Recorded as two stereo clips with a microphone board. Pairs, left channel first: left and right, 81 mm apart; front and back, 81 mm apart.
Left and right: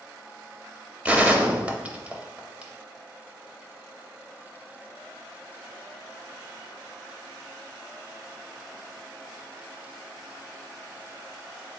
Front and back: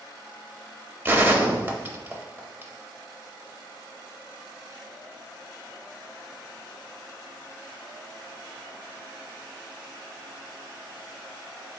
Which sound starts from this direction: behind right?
A gunshot, at 1.1 s.